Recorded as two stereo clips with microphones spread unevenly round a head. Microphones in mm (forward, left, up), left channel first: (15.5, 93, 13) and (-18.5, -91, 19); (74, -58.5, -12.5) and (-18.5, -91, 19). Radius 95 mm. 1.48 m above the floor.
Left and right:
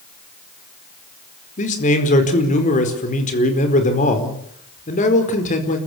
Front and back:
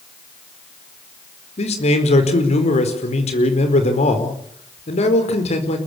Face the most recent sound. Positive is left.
turn(degrees=30)